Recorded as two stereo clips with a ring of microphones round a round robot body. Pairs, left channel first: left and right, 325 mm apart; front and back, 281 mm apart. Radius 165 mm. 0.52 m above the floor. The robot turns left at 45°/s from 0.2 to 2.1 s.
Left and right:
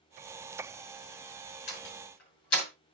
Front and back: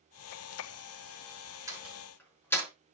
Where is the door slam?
100° left, 5.5 m; by 2.7 s 80° left, 5.5 m.